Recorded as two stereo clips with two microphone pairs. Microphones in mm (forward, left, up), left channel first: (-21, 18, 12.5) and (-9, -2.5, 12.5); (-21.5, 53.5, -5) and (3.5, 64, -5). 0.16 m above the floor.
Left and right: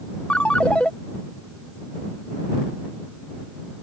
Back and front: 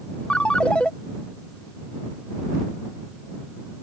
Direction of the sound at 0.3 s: 150° left.